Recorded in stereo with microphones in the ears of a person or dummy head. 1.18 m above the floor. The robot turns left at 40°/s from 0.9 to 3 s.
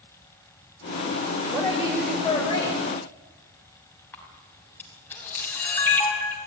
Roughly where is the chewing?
No chewing in this recording.